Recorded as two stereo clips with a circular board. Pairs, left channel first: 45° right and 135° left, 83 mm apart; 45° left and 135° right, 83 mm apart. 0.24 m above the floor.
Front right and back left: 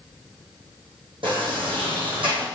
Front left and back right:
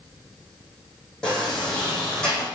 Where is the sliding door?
125° left, 4.5 m.